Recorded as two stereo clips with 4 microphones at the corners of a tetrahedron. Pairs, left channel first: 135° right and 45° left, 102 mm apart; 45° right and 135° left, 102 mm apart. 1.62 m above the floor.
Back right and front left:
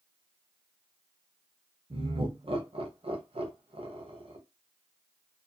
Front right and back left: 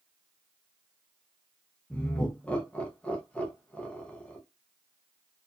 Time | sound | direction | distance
1.9 | laughter | 30° left | 0.8 m